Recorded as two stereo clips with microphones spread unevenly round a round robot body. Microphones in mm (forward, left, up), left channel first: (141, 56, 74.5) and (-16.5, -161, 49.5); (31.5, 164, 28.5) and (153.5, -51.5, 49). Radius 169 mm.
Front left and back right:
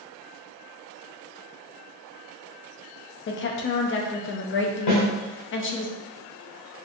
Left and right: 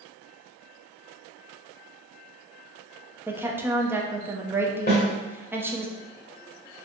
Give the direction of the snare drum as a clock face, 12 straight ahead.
10 o'clock.